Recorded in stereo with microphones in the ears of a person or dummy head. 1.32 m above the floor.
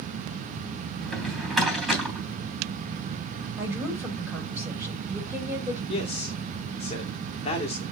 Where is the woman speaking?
15° right (ahead or behind), 6.5 m.